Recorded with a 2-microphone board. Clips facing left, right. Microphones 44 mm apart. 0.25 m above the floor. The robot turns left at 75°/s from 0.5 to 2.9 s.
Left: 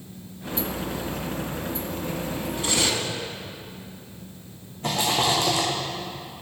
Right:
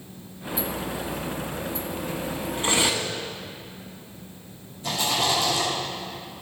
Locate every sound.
2.6 s cutlery clinking: 35° right (ahead or behind), 1.0 m; by 3.1 s 15° right (ahead or behind), 1.0 m
4.8 s a rattle: 50° left (ahead or behind), 3.5 m